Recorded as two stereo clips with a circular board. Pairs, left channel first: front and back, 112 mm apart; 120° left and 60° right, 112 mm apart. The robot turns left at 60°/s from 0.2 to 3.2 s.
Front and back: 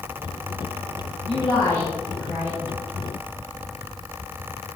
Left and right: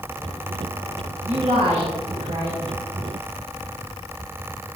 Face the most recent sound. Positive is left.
turn(degrees=-150)